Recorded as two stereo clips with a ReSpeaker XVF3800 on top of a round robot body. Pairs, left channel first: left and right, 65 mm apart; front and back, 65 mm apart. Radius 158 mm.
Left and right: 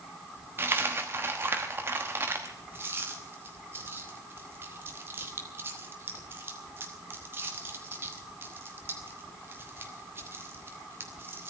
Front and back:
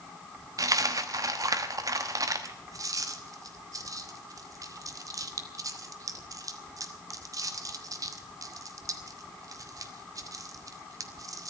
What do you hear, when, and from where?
0.6 s a dropped coin: 150° right, 1.1 m